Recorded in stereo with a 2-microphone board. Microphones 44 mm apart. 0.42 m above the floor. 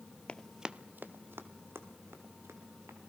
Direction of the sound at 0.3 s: 25° left (ahead or behind).